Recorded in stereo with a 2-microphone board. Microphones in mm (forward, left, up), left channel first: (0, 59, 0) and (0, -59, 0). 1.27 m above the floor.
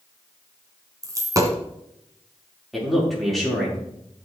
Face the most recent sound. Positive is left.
turn(degrees=0)  # may be behind; listen again after turning